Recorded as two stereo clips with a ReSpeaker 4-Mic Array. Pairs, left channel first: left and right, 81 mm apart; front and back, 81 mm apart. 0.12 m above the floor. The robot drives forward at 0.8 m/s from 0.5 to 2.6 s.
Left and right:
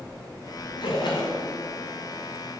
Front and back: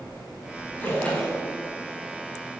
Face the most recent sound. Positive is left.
turn(degrees=90)